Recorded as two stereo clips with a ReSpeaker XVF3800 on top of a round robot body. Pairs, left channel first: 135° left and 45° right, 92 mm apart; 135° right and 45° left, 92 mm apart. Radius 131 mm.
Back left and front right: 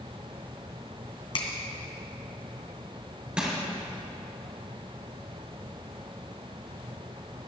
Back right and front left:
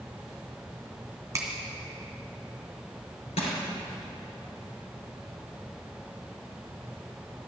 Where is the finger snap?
110° left, 2 m.